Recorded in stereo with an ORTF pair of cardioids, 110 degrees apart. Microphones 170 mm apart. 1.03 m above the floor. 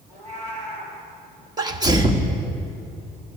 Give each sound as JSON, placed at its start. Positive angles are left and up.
{"t": 0.1, "sound": "a cat meowing", "azimuth_deg": -45, "distance_m": 4.0}
{"t": 1.6, "sound": "a sneeze", "azimuth_deg": -25, "distance_m": 1.2}